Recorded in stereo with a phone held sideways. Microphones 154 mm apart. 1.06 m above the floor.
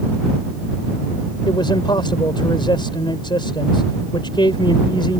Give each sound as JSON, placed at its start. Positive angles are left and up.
{"t": 1.5, "sound": "a man speaking", "side_deg": 30}